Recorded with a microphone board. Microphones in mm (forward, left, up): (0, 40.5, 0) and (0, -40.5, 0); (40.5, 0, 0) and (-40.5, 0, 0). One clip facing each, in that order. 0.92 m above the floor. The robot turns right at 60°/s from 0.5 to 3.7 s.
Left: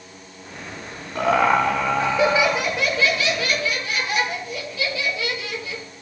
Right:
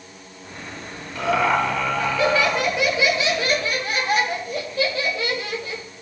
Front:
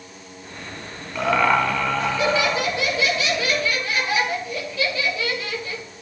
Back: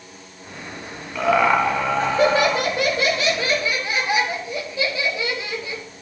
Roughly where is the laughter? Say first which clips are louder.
Left 2 dB, back 2 dB; left.